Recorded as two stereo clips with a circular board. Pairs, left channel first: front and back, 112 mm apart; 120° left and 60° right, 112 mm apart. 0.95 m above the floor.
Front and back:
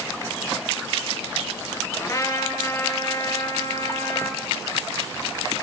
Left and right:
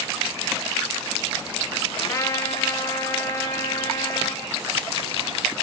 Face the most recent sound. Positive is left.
turn(degrees=60)